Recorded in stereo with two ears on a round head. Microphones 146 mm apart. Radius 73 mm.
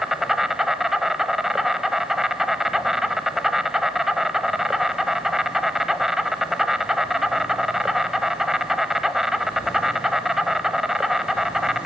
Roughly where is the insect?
Centre.